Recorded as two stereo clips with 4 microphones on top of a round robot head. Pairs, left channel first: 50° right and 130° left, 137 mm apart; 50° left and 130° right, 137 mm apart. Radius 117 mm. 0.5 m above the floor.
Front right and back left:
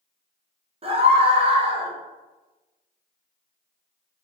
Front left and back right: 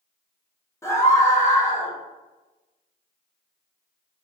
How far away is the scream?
About 1.0 m.